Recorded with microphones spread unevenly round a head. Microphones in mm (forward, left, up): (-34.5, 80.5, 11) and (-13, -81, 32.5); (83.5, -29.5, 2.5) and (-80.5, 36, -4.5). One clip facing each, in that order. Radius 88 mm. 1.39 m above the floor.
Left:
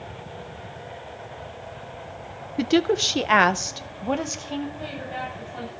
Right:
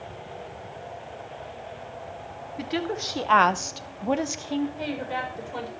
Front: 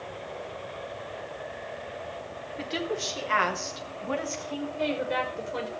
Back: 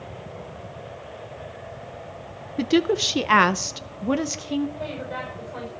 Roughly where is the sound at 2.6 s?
Behind left.